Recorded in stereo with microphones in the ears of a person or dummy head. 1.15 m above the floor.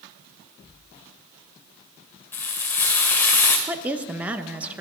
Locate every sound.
2.3 s frying: 10° left (ahead or behind), 1.5 m
3.7 s a woman speaking: 5° right (ahead or behind), 0.8 m